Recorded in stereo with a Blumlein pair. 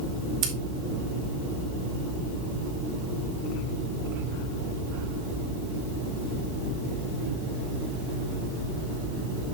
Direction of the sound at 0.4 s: 35° right.